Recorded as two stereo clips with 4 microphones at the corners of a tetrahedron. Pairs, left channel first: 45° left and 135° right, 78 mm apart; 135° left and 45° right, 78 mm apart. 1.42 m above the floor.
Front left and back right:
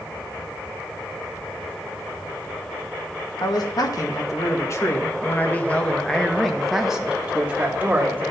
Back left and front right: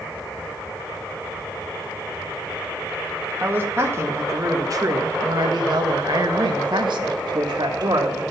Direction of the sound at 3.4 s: 20° left.